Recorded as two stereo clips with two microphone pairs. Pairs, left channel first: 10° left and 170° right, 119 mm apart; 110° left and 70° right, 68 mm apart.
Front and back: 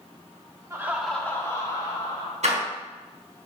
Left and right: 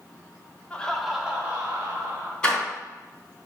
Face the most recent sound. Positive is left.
turn(degrees=-175)